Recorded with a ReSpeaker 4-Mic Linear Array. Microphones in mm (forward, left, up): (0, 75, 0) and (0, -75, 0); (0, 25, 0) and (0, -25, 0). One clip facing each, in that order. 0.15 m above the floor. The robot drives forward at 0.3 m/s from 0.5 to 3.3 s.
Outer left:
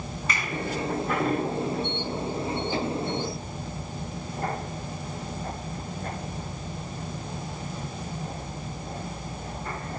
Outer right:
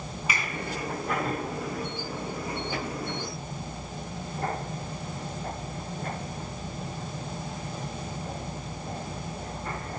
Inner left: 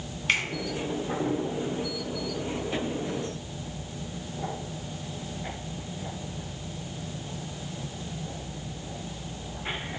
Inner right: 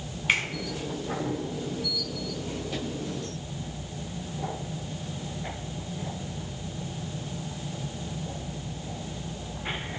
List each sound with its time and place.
0.3 s a finger snap: 10° right (ahead or behind), 1.2 m